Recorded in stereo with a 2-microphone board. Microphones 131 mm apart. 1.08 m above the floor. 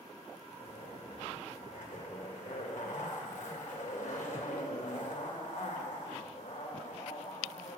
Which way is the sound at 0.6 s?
80° left.